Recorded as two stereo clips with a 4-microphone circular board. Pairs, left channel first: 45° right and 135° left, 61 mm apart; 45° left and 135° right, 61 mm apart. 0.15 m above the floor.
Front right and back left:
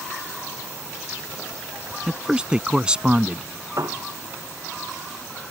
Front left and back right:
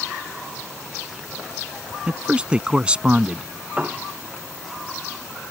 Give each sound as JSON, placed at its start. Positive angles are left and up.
{"t": 2.1, "sound": "a man speaking", "azimuth_deg": -175}
{"t": 3.8, "sound": "a piano", "azimuth_deg": 160}